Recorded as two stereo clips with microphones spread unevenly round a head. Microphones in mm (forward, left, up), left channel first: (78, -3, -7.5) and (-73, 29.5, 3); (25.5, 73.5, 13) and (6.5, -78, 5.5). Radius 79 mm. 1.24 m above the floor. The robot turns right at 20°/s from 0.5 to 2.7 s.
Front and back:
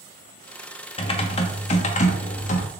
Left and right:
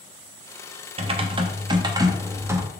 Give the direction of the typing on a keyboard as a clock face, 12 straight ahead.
2 o'clock.